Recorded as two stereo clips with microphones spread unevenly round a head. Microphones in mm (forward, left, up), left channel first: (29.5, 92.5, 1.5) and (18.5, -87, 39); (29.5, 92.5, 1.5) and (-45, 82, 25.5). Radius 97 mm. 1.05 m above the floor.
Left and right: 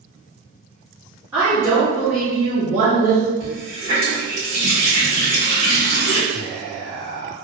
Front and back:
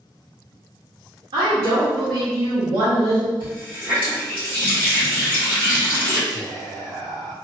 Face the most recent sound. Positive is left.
turn(degrees=-125)